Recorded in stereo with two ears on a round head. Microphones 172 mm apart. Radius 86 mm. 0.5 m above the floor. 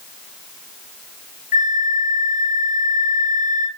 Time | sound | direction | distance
1.5 | a flute | 40° left (ahead or behind) | 0.8 m